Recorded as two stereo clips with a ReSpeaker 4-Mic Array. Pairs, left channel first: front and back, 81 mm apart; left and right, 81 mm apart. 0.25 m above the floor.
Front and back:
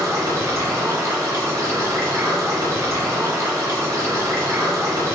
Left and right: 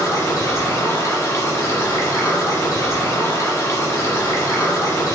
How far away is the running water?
About 1.4 m.